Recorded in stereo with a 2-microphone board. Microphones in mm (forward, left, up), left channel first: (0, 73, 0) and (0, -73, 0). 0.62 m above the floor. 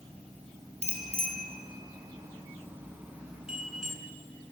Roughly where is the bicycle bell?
Right.